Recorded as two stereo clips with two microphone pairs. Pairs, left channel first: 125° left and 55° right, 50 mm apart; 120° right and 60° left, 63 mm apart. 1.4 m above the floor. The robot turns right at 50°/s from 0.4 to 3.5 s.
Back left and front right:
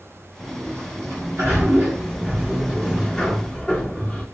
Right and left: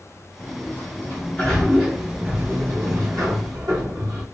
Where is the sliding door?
95° right, 1.6 m; by 4.2 s 60° left, 1.6 m.